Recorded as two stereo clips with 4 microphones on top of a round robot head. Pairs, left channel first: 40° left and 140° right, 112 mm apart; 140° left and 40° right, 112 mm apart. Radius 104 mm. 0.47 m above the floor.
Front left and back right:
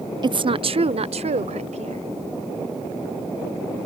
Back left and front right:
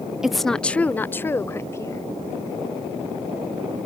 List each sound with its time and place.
0.2 s a woman speaking: 125° right; by 2.0 s 160° right